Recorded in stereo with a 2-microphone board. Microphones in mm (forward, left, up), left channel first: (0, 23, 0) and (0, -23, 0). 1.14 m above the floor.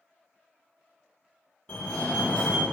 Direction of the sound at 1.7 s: 25° left (ahead or behind).